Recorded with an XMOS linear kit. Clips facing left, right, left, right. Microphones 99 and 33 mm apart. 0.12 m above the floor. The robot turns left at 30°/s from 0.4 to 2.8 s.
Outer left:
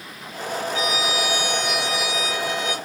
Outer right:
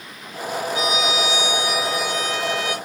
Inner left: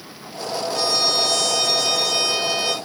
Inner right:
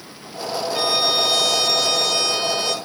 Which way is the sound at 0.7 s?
145° right.